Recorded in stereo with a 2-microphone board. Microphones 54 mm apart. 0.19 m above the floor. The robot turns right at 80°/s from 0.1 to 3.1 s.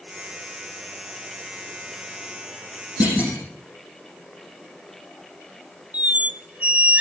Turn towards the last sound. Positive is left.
turn(degrees=-25)  # may be behind; listen again after turning